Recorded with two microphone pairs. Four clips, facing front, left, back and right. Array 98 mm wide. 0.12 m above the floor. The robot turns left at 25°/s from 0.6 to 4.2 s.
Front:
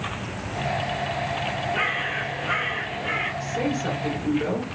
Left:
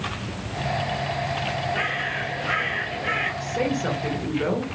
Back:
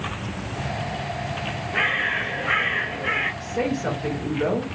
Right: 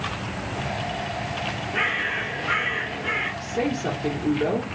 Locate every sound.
1.7 s a bird: 175° right, 1.3 m; by 3.3 s 145° left, 1.3 m
3.4 s a woman speaking: 140° left, 1.5 m; by 4.8 s 120° left, 1.5 m